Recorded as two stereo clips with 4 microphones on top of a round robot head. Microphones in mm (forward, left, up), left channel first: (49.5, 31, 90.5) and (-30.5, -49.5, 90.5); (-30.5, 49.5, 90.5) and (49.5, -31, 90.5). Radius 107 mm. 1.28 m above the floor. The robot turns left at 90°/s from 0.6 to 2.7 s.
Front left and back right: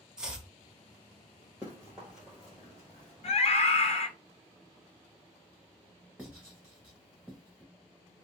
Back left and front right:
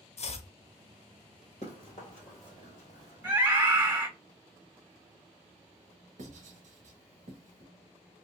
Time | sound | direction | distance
0.2 | chopping | 140° left | 0.8 m
1.6 | running footsteps | 150° left | 1.4 m
3.2 | a scream | 30° left | 0.7 m
6.2 | writing | 50° right | 1.1 m